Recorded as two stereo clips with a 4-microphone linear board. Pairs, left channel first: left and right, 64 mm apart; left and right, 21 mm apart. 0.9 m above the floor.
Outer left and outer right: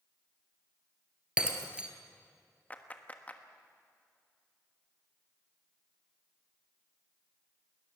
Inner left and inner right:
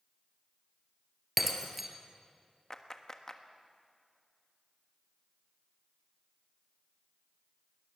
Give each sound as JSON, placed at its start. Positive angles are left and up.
{"t": 1.4, "sound": "breaking glass", "side_deg": -15, "distance_m": 1.8}
{"t": 2.7, "sound": "a clap", "side_deg": 25, "distance_m": 1.3}